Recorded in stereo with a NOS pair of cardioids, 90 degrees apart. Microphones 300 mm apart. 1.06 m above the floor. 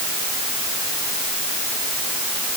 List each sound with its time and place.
Only background noise.